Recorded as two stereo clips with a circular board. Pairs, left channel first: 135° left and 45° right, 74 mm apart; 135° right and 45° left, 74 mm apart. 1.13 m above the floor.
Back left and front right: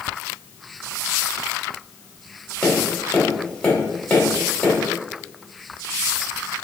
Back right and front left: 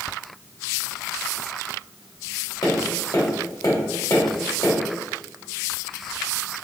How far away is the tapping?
About 1.4 m.